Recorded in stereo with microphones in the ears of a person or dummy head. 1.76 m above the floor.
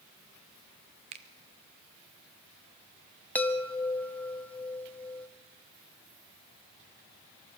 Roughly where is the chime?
Centre.